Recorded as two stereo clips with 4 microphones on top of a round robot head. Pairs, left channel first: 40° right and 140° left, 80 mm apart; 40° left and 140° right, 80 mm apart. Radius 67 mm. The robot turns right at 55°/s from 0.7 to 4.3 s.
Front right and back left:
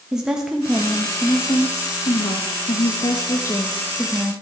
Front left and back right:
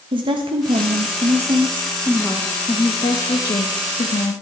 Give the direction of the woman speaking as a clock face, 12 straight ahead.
5 o'clock.